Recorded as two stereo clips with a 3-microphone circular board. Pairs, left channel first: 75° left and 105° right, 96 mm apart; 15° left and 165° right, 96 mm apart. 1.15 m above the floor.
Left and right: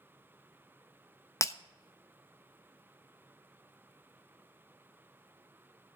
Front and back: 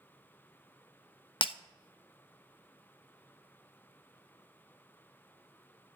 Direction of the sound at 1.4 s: 20° left.